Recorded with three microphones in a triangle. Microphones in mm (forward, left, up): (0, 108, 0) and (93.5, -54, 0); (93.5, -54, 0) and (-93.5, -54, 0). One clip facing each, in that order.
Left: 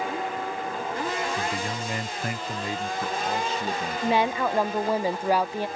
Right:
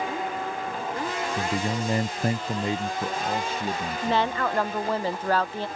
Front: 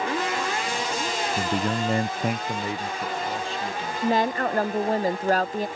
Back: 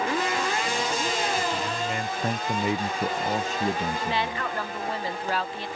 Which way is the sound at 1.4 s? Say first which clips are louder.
Right 3 dB, front 3 dB; 5° left.